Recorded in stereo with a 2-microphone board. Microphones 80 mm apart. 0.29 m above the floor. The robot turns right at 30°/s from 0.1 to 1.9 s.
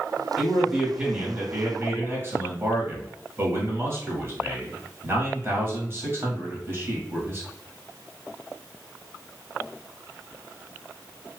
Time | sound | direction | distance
0.4 | a man speaking | 175° right | 1.3 m